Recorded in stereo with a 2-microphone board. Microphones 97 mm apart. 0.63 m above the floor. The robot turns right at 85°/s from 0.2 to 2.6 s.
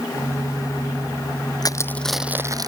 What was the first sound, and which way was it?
Crushing, 45° left (ahead or behind).